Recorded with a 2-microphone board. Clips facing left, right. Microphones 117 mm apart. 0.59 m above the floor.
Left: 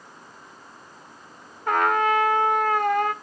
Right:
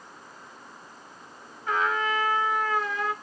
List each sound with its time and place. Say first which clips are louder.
1.7 s a trumpet: left 6 dB; 60° left (ahead or behind), 0.6 m